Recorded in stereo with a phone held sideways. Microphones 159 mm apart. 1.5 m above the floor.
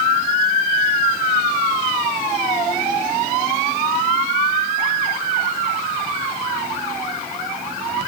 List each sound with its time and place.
Only background noise.